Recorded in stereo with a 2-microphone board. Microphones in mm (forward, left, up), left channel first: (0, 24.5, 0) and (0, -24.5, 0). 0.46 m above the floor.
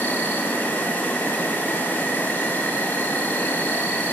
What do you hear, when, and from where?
0.0 s an insect: 40° left (ahead or behind), 1.6 m